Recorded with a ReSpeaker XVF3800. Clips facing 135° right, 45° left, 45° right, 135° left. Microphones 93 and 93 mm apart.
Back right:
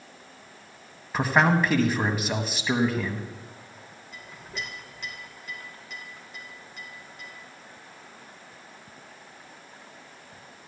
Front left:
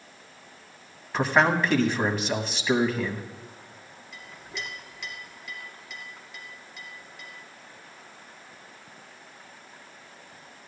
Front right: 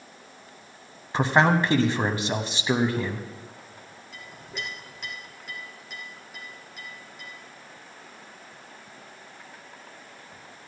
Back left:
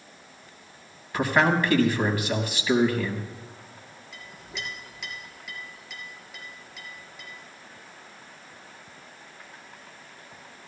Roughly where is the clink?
Right.